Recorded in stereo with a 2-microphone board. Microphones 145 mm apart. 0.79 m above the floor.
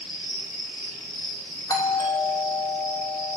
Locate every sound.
0.0 s an insect: 40° left (ahead or behind), 4 m
1.7 s a doorbell: 25° left (ahead or behind), 1.4 m